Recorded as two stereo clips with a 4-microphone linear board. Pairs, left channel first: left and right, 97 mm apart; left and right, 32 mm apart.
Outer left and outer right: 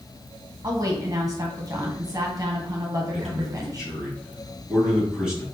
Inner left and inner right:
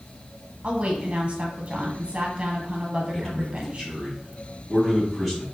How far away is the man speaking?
About 2.5 m.